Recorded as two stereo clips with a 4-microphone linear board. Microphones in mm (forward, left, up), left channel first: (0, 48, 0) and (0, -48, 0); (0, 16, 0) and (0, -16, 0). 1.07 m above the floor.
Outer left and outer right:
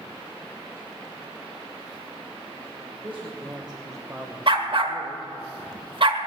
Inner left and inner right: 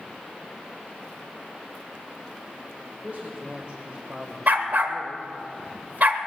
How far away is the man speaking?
About 1.8 m.